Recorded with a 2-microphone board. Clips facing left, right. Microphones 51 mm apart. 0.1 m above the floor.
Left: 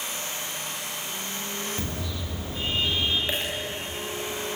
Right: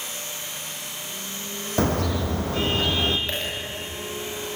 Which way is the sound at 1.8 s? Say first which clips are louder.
Right 10 dB; 70° right (ahead or behind).